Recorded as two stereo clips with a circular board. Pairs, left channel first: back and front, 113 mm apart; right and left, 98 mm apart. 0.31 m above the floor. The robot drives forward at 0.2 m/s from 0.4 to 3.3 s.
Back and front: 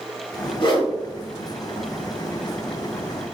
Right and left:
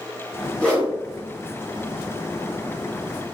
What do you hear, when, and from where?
0.6 s a whoosh: 165° right, 0.9 m; by 0.9 s 170° right, 1.0 m